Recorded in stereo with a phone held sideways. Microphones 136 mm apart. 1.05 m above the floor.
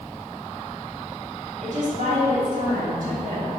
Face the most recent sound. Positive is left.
turn(degrees=-70)  # may be behind; listen again after turning